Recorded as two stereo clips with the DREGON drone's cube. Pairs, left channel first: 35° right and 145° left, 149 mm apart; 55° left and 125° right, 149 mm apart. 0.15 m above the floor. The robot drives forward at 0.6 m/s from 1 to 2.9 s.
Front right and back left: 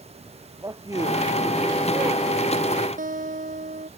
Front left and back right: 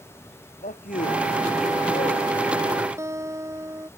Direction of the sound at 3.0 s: 165° left.